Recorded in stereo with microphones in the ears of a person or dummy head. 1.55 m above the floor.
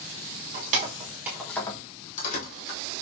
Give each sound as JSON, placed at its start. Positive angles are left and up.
{"t": 0.5, "sound": "keys jangling", "side_deg": -45, "distance_m": 0.8}